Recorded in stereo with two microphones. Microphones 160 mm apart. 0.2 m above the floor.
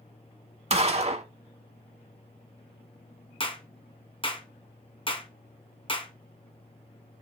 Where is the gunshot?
40° right (ahead or behind), 0.9 m.